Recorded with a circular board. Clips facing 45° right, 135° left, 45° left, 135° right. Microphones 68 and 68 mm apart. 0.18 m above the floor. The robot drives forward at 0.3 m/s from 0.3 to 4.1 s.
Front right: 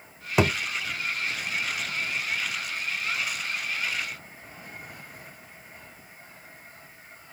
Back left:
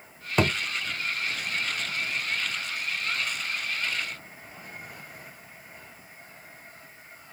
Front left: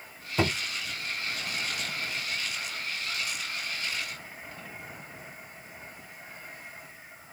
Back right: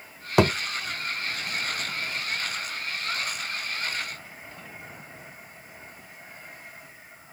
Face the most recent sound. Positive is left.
turn(degrees=-160)